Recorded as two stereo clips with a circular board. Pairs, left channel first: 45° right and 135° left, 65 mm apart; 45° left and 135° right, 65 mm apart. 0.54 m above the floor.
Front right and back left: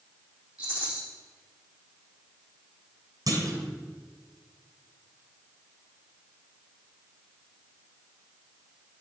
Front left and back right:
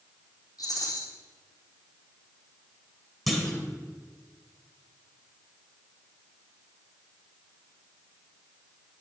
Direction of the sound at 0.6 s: 65° left.